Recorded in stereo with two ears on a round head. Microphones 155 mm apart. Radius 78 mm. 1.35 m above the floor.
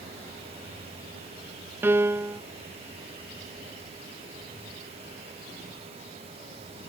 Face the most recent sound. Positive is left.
turn(degrees=-10)  # may be behind; listen again after turning